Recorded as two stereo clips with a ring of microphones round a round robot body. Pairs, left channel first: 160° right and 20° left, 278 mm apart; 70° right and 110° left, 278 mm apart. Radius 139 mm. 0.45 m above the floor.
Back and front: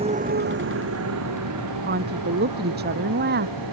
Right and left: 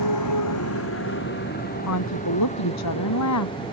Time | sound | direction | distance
0.0 | a motorcycle | 50° right | ?
1.8 | a woman speaking | 35° right | ?